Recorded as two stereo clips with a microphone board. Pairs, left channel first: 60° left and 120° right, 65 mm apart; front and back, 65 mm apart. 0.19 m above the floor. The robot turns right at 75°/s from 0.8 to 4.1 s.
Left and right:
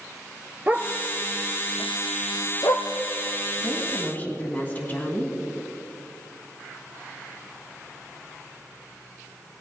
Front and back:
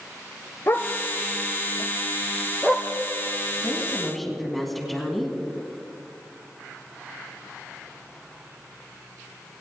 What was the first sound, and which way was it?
A dog barking, 55° right.